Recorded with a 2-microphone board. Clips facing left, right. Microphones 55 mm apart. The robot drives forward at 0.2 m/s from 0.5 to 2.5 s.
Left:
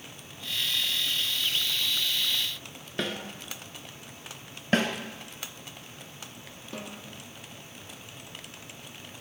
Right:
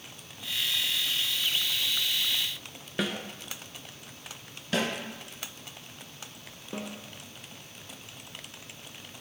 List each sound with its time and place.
3.0 s a snare drum: 5° right (ahead or behind), 0.6 m
4.7 s a snare drum: 40° left (ahead or behind), 0.8 m
6.7 s a snare drum: 20° right (ahead or behind), 1.1 m